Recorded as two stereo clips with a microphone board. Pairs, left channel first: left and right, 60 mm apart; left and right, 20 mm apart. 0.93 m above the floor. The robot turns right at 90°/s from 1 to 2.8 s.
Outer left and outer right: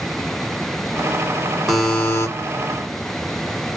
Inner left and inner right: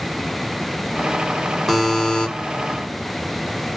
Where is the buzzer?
Straight ahead, 1.8 m; by 2.3 s 55° left, 1.8 m.